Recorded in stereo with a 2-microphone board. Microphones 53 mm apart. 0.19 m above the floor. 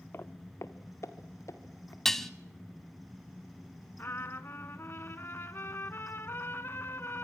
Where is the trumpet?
50° left (ahead or behind), 0.9 m.